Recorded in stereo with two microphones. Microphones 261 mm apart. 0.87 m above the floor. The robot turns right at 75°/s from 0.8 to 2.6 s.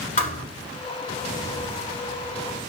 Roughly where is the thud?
Left.